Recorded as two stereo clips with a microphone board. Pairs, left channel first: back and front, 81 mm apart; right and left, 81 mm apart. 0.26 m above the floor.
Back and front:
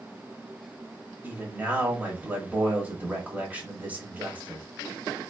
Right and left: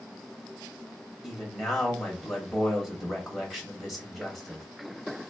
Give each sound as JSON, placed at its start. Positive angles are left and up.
{"t": 1.2, "sound": "a man speaking", "azimuth_deg": 0, "distance_m": 0.9}